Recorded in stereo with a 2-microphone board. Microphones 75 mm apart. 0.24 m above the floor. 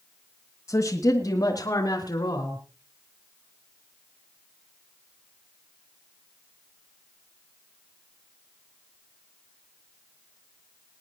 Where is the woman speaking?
40° left (ahead or behind), 2 m; by 2.6 s 60° left (ahead or behind), 3.5 m.